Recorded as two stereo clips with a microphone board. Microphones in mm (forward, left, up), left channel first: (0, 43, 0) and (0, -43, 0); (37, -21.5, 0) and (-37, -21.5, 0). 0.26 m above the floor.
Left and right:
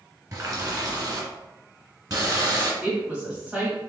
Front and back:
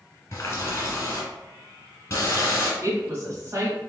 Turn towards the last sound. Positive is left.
turn(degrees=-160)